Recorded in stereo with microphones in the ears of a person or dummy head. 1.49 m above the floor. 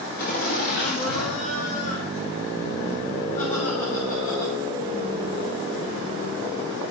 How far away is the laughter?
About 1.9 m.